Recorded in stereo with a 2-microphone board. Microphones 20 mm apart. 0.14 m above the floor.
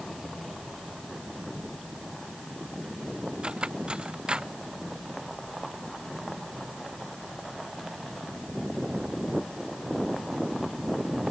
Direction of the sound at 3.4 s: 50° right (ahead or behind).